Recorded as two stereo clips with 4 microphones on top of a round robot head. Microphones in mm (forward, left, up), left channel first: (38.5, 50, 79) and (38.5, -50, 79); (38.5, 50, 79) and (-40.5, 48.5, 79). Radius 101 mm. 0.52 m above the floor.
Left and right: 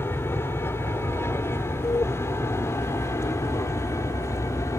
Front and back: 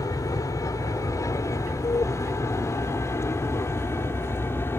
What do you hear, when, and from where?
0.0 s an aircraft: 30° left; by 4.8 s 45° left